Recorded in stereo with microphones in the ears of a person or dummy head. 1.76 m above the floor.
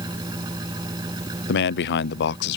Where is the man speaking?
60° left (ahead or behind).